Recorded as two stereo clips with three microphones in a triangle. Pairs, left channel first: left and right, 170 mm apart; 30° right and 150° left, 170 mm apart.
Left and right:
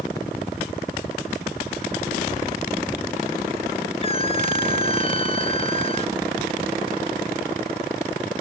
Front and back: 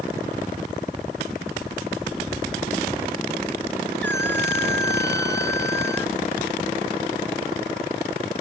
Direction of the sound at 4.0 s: 145° left.